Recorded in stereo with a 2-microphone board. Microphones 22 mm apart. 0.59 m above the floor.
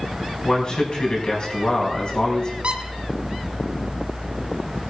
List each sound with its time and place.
0.4 s a man speaking: 40° left (ahead or behind), 4.5 m
2.6 s a squeak: 55° right (ahead or behind), 1.6 m